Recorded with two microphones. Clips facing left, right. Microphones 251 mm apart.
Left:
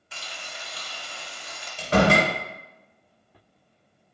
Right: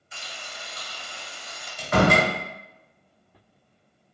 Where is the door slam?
30° left (ahead or behind), 0.8 m.